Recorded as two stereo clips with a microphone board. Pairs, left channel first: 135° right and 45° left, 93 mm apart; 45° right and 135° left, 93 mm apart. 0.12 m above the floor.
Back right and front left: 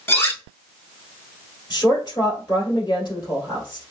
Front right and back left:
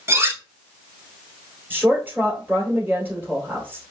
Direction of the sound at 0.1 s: 175° left.